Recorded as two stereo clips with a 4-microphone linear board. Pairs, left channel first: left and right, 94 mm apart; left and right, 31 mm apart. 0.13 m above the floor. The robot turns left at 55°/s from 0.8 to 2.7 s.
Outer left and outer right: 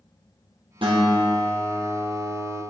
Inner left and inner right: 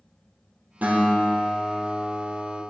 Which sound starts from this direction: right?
A guitar, at 0.8 s.